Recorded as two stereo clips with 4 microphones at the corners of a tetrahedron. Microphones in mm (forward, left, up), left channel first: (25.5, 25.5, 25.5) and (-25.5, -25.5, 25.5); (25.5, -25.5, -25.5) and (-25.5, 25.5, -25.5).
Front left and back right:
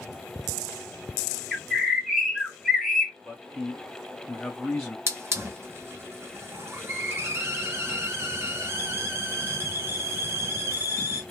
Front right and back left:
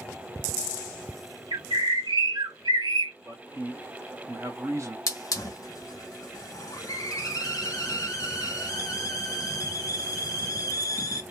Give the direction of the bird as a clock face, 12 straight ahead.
7 o'clock.